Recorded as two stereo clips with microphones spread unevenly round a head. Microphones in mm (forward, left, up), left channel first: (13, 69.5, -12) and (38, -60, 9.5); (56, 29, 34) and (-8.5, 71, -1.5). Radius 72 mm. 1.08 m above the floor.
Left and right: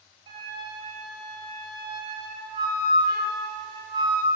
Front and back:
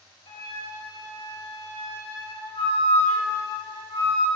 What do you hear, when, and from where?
0.3 s a flute: 25° right, 6 m